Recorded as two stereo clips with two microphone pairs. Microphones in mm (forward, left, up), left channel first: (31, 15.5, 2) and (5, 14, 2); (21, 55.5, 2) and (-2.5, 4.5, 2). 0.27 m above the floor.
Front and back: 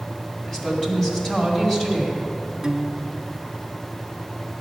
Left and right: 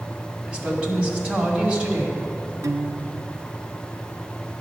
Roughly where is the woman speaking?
Ahead right.